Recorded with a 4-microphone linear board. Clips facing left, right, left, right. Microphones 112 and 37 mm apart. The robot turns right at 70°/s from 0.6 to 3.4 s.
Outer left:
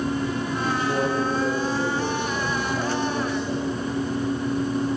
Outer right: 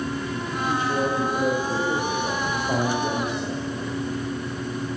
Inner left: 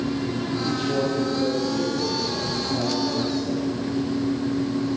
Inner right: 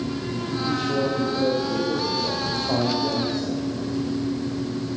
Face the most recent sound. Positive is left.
turn(degrees=-30)